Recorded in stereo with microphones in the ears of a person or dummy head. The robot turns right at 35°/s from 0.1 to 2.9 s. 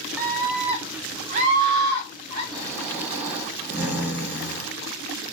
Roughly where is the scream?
Behind.